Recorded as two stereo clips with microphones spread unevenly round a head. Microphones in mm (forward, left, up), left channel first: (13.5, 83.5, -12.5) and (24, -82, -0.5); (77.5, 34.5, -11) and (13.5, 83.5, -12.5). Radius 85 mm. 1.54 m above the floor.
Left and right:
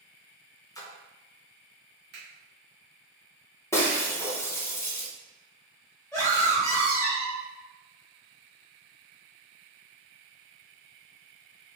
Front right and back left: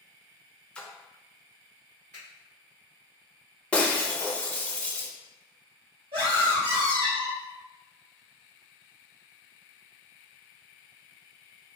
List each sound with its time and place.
0.8 s a splash: 30° left, 0.6 m
2.1 s a finger snap: 115° right, 1.2 m
3.7 s breaking glass: 25° left, 0.7 m
6.1 s a scream: 170° left, 1.2 m